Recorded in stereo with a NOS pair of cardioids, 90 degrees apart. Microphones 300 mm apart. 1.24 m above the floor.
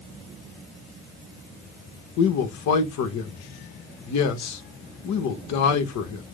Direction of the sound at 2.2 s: 65° left.